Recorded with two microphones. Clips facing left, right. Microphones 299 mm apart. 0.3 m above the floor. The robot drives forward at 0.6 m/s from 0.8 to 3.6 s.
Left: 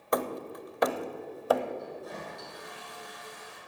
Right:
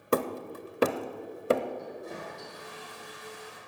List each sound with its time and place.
0.1 s hammering: 35° right (ahead or behind), 0.8 m; by 1.6 s 30° right (ahead or behind), 0.9 m
1.8 s a toilet flushing: 30° right (ahead or behind), 6 m; by 3.6 s 35° right (ahead or behind), 5 m